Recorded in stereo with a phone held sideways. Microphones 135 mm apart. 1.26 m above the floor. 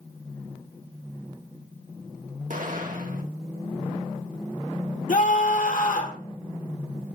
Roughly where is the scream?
Left.